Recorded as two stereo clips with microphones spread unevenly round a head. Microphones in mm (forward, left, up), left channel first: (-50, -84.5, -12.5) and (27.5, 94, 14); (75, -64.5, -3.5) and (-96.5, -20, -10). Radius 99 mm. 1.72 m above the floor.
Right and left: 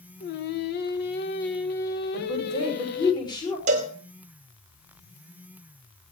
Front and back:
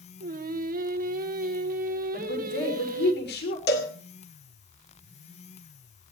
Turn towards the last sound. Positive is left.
turn(degrees=20)